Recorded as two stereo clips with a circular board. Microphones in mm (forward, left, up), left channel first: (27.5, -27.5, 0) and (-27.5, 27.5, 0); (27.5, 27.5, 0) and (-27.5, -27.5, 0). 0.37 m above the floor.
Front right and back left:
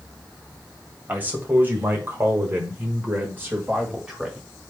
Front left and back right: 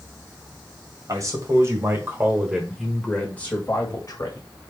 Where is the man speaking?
165° right, 1.9 m; by 4.5 s 65° left, 1.8 m.